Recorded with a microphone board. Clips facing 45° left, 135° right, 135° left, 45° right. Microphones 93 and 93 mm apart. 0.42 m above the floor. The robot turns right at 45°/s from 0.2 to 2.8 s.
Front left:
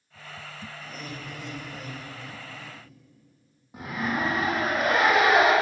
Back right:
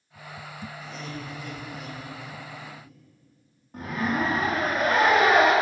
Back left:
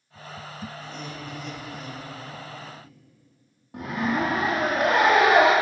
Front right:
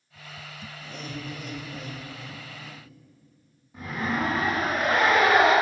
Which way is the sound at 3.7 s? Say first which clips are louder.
Back right 2 dB, back left 3 dB; 125° left.